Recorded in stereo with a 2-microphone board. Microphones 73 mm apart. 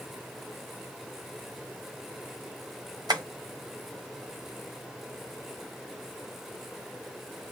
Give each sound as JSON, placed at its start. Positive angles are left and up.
{"t": 3.1, "sound": "tapping", "side_deg": -65, "distance_m": 1.0}